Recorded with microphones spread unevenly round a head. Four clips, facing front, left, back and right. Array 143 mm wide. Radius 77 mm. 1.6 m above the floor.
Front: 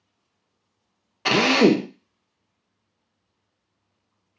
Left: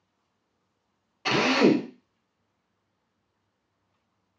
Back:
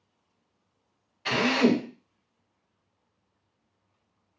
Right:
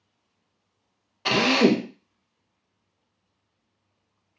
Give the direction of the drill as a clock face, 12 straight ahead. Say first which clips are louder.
Right 1 dB, front 6 dB; 12 o'clock.